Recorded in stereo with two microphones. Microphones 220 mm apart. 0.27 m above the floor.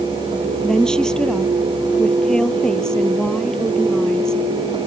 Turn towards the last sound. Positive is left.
turn(degrees=5)  # may be behind; listen again after turning